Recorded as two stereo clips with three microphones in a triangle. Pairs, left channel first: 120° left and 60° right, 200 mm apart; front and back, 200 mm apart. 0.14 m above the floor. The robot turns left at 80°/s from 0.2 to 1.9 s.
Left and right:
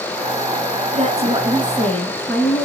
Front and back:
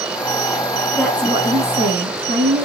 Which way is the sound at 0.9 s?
85° right.